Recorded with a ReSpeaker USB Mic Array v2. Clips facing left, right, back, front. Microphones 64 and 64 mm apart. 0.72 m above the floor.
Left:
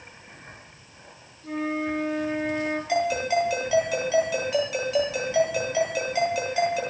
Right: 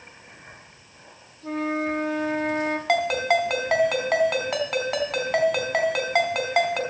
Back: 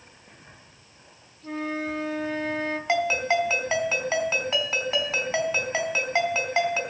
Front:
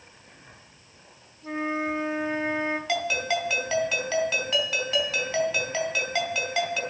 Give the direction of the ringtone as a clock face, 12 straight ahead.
4 o'clock.